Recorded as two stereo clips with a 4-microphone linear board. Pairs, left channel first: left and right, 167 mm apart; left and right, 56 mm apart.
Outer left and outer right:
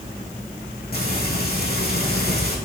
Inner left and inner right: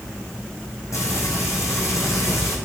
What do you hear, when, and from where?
0.9 s frying: 70° left (ahead or behind), 3 m